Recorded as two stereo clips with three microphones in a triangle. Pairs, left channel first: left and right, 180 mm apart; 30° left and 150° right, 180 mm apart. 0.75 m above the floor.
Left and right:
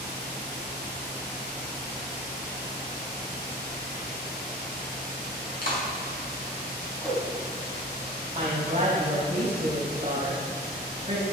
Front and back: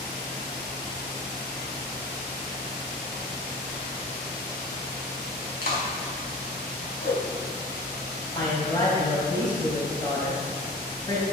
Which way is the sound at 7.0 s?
5° left.